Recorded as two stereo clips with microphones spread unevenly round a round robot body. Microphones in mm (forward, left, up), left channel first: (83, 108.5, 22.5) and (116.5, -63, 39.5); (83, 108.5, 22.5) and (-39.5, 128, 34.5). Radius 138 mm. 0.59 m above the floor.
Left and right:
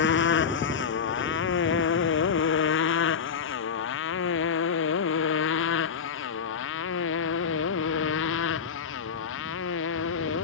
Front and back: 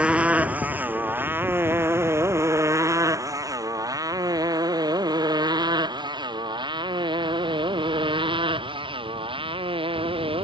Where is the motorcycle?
90° left; by 10.4 s 125° left.